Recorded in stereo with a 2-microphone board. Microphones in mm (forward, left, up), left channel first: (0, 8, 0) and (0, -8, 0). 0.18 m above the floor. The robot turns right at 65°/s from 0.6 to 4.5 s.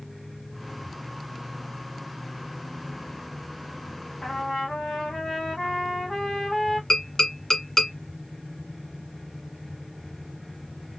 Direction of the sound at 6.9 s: 40° left (ahead or behind).